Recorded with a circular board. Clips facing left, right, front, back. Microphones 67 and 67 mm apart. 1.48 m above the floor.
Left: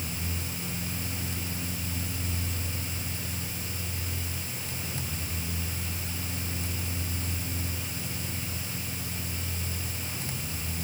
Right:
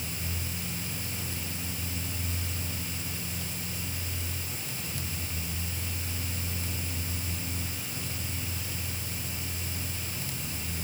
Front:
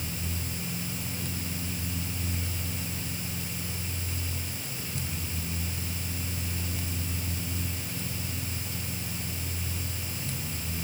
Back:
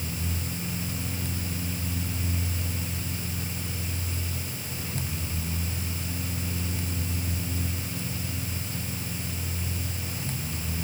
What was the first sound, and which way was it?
Only background noise.